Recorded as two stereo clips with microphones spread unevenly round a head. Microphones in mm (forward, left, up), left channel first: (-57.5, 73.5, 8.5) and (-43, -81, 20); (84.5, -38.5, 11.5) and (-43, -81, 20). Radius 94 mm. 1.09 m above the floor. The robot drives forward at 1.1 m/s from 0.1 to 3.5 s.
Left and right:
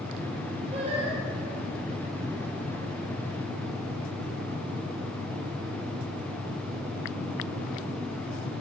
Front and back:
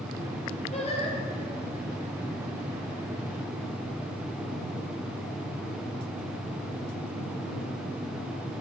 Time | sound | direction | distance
0.7 | singing | 20° right | 10 m